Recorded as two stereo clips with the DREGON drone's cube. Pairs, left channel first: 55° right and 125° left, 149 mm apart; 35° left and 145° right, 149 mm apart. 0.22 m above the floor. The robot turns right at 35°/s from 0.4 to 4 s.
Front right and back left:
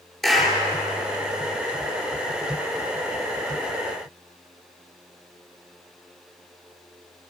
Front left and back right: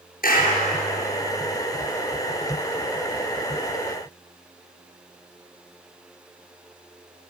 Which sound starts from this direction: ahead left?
A clap, at 0.2 s.